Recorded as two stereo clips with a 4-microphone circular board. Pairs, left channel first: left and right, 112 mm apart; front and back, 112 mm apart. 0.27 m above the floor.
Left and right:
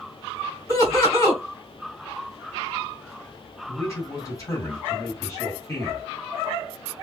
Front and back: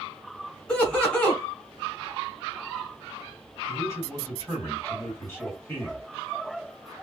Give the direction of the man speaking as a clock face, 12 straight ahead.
10 o'clock.